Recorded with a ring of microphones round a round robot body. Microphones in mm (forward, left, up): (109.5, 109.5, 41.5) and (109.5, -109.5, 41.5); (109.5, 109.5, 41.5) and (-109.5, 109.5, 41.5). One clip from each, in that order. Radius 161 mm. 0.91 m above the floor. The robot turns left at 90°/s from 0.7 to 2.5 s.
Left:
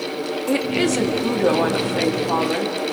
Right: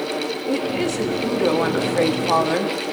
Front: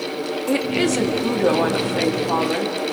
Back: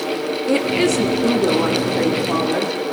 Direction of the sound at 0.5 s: 80° left.